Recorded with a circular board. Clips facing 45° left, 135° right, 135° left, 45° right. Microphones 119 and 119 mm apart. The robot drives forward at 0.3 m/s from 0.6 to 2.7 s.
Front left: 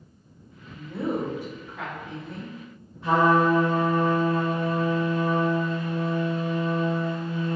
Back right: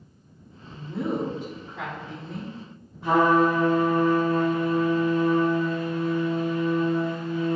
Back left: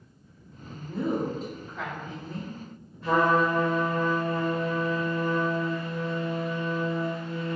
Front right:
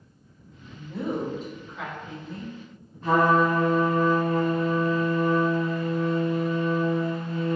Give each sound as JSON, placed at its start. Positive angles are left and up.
{"t": 0.7, "sound": "a woman speaking", "azimuth_deg": 165, "distance_m": 1.6}
{"t": 3.0, "sound": "a trumpet", "azimuth_deg": -70, "distance_m": 1.3}